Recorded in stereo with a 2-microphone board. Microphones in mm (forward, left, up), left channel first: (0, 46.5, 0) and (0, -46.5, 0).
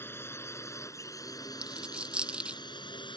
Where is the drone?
25° left (ahead or behind); by 3.2 s 60° left (ahead or behind).